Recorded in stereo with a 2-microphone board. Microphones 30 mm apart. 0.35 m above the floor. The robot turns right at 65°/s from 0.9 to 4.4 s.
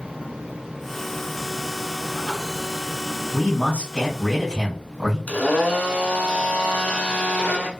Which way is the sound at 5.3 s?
70° left (ahead or behind).